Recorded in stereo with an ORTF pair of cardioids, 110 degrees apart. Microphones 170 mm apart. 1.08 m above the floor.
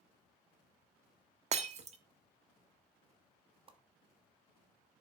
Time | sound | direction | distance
1.5 | breaking glass | 40° right | 1.1 m
3.7 | a whoosh | 30° right | 1.3 m